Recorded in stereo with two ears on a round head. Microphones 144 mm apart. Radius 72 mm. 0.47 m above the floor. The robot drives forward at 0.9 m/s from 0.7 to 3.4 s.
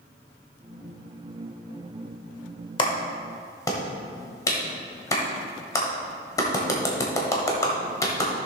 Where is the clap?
30° left (ahead or behind), 1.0 m; by 8.3 s 20° left (ahead or behind), 1.5 m.